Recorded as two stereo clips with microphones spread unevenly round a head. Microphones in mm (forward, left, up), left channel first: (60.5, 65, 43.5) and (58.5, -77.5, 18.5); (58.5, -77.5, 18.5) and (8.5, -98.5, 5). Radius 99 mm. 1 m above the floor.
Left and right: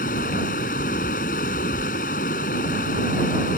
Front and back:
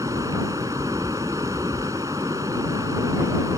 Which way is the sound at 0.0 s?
135° left.